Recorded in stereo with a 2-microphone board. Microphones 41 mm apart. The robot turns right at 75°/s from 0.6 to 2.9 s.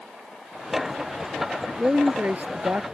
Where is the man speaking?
155° right; by 2.9 s 65° right.